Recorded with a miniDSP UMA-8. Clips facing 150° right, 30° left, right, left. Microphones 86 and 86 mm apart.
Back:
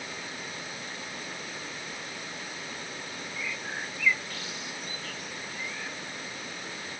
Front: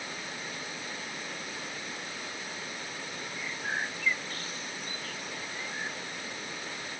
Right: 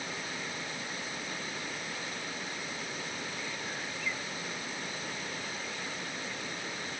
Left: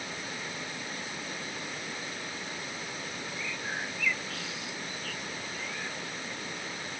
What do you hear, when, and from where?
3.4 s a bird: 80° left